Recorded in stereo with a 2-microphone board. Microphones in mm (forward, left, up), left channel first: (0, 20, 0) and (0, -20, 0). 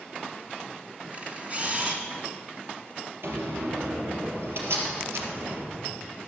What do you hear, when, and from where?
1.1 s a camera shutter: 35° right (ahead or behind), 1.6 m
3.2 s a door slam: 70° right (ahead or behind), 3 m